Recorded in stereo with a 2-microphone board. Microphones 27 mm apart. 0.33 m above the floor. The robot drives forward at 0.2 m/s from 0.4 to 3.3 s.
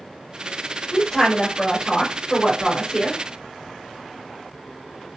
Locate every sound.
0.9 s a woman speaking: 20° left (ahead or behind), 1.4 m